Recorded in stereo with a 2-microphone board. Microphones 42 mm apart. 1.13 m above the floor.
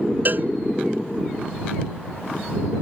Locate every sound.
0.2 s a cowbell: 45° right (ahead or behind)